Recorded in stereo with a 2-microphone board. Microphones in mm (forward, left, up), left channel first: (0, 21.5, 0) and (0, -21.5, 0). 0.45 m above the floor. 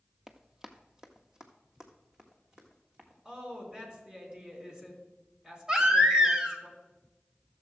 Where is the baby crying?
15° right (ahead or behind), 1.5 m.